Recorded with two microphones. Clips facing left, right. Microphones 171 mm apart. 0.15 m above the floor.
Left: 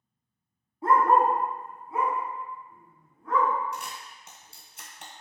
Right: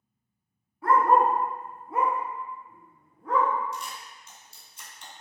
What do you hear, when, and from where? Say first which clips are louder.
0.8 s a dog barking: even; 25° left (ahead or behind), 0.6 m; by 3.5 s 80° right, 2.5 m
3.7 s a camera shutter: even; 70° left (ahead or behind), 0.9 m